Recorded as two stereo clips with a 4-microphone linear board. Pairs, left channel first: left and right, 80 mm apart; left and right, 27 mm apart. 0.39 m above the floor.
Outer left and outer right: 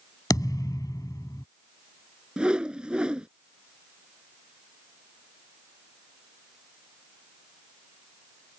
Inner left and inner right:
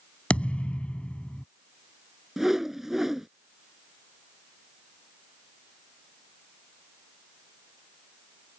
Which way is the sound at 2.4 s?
10° right (ahead or behind).